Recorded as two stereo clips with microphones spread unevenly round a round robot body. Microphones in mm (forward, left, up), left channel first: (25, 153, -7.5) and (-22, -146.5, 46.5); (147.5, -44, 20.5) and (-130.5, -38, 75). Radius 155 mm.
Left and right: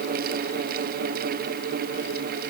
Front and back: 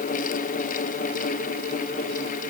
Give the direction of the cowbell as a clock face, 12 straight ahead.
I don't hear a cowbell.